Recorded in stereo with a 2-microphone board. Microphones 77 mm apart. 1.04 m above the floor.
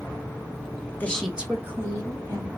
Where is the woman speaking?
25° left (ahead or behind), 0.8 m; by 2.5 s 45° right (ahead or behind), 2.5 m.